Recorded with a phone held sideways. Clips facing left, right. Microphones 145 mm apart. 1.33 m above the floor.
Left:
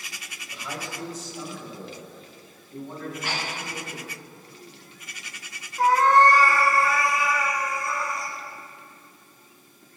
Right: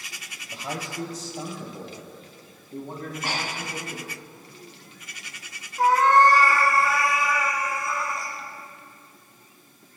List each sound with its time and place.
0.5 s a man speaking: 40° right (ahead or behind), 3 m; by 4.0 s 35° right (ahead or behind), 6 m
3.0 s breathing: 50° right (ahead or behind), 2.5 m
5.8 s a cat meowing: centre (ahead or behind), 2.5 m